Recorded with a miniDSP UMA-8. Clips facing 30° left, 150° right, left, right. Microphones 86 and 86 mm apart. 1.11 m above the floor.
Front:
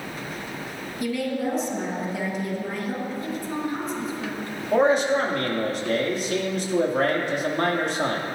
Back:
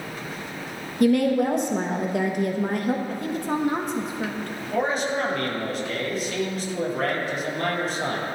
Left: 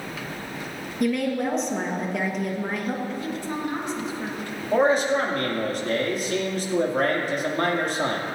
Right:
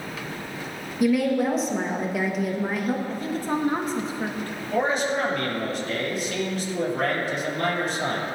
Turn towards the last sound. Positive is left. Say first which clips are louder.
# front 6 dB, left 4 dB
turn(degrees=55)